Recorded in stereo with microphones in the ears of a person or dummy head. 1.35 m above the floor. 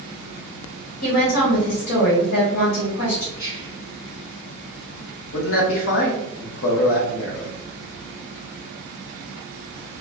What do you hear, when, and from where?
1.0 s a woman speaking: 90° left, 1.3 m
3.4 s whispering: 25° left (ahead or behind), 1.5 m
5.3 s a man speaking: 70° left (ahead or behind), 1.0 m